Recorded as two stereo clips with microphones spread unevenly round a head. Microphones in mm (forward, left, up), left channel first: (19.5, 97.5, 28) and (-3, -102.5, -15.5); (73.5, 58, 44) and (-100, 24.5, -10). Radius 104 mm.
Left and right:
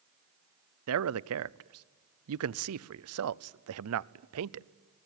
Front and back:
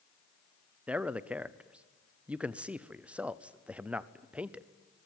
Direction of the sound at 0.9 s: 85° right.